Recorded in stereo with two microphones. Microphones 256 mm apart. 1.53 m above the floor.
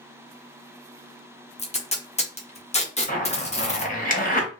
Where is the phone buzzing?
No phone buzzing in this recording.